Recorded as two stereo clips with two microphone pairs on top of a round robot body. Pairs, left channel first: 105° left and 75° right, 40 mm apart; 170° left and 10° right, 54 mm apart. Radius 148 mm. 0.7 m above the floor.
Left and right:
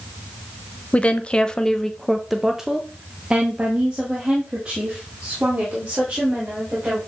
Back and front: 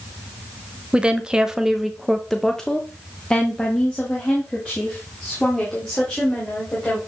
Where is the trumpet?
I don't hear a trumpet.